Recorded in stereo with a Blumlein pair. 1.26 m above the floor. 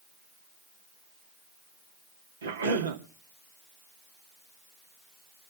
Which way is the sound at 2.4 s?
70° right.